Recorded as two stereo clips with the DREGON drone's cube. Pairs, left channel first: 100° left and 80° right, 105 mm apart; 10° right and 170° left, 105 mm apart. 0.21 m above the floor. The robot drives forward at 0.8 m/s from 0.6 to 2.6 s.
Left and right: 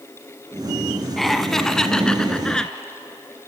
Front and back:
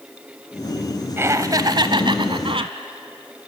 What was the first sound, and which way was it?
Laughter, 175° right.